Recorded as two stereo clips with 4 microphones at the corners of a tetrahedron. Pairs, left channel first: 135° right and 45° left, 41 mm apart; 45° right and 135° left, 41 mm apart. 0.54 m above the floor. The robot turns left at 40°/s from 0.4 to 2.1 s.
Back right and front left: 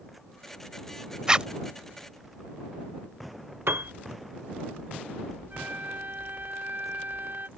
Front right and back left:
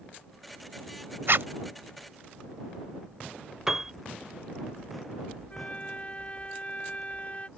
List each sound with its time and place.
1.3 s a zipper: 115° left; by 1.5 s 110° left
3.7 s a piano: 60° left
5.5 s a flute: 15° left